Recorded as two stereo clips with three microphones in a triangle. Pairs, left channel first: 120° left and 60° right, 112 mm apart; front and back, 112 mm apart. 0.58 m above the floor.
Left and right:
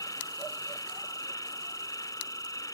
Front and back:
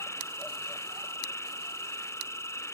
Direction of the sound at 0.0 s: 65° left.